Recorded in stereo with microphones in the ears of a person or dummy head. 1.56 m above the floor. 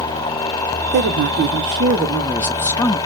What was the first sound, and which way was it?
A woman speaking, 50° right (ahead or behind).